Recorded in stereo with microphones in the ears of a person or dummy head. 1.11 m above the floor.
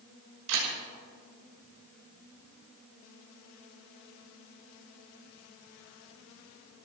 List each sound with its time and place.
0.5 s a camera shutter: 80° right, 6 m